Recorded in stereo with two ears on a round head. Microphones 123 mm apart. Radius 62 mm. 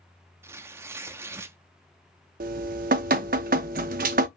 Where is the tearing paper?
20° right (ahead or behind), 0.6 m.